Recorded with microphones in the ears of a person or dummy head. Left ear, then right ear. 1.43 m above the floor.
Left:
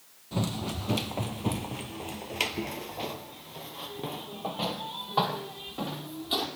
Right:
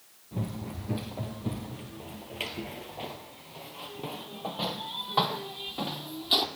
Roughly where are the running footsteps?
Left.